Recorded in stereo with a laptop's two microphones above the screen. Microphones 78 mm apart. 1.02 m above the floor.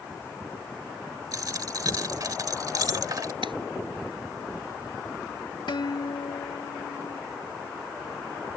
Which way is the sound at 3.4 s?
85° right.